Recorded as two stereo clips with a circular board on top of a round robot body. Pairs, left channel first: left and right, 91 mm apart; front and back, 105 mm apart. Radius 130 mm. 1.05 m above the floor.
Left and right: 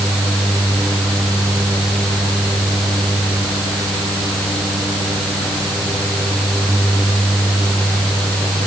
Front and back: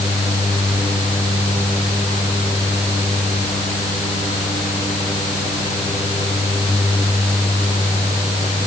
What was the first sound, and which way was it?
Only background noise.